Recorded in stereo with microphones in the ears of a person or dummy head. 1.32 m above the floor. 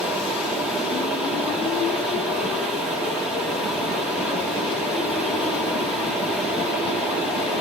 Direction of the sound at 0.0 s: Centre (ahead or behind).